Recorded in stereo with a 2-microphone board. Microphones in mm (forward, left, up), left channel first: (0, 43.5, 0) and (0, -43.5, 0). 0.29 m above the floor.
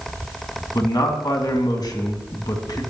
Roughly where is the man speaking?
Left.